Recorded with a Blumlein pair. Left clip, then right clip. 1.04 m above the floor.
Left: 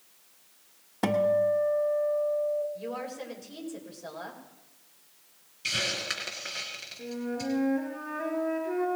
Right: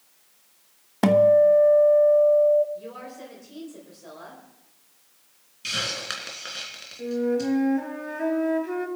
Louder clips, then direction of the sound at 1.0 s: Right 9 dB; 20° right.